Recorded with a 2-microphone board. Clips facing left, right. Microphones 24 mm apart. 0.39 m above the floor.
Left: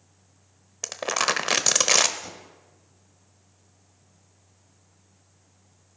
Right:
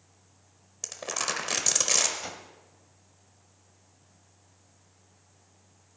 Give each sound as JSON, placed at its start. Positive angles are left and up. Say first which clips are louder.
{"t": 0.8, "sound": "crumpling", "louder": "left 7 dB", "side_deg": 35, "distance_m": 1.0}
{"t": 2.2, "sound": "a whoosh", "louder": "right 2 dB", "side_deg": -30, "distance_m": 1.4}